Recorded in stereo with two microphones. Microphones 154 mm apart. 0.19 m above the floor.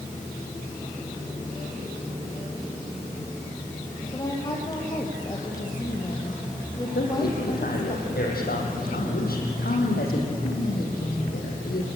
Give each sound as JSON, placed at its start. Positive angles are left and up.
{"t": 4.1, "sound": "a woman speaking", "side_deg": 25, "distance_m": 5.5}
{"t": 7.0, "sound": "a man speaking", "side_deg": 80, "distance_m": 6.5}